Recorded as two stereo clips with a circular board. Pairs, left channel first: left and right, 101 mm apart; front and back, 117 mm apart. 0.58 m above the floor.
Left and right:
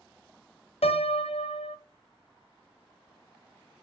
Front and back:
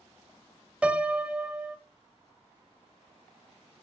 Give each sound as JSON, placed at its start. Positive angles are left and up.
{"t": 0.8, "sound": "a piano", "azimuth_deg": 100, "distance_m": 0.6}